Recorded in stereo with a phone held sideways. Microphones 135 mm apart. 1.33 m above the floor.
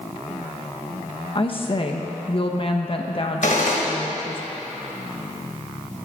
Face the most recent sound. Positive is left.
turn(degrees=75)  # may be behind; listen again after turning